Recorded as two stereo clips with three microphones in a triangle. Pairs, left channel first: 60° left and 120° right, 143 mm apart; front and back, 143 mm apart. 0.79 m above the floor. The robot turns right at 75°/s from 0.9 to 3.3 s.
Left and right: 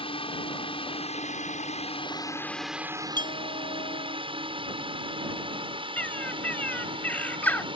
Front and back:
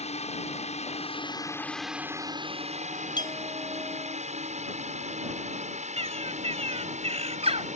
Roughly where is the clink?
Ahead left.